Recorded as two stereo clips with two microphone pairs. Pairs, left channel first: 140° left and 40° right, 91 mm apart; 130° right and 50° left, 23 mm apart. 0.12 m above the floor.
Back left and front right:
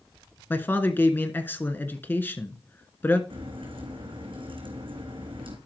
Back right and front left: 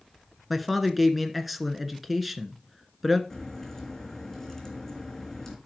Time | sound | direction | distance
0.5 | a man speaking | 125° left | 1.2 m
3.3 | a crack | 55° right | 3.5 m